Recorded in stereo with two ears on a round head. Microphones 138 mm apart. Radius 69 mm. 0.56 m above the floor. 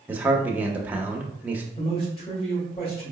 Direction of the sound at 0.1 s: 10° right (ahead or behind).